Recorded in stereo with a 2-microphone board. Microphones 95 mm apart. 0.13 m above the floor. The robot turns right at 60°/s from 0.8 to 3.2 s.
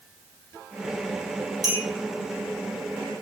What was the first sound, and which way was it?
A clink, 40° right (ahead or behind).